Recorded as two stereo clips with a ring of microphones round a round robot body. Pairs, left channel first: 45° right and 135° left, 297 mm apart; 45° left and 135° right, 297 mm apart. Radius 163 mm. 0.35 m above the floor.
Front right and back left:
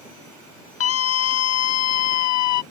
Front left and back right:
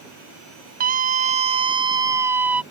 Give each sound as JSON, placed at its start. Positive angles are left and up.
{"t": 0.8, "sound": "a scream", "azimuth_deg": -80}